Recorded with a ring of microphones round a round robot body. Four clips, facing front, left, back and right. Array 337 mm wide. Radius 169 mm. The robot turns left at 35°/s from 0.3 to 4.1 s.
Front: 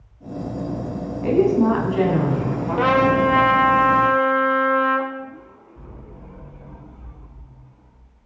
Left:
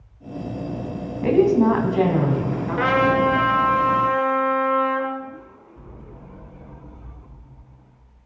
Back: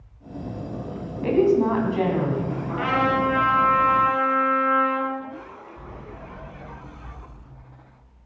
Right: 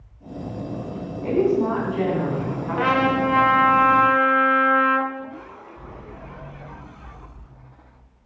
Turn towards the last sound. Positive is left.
turn(degrees=-20)